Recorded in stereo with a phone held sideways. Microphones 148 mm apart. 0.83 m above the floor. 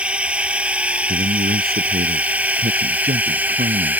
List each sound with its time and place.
0.0 s a drone: 5° right (ahead or behind); by 4.0 s 10° right (ahead or behind)
1.1 s a man speaking: 85° right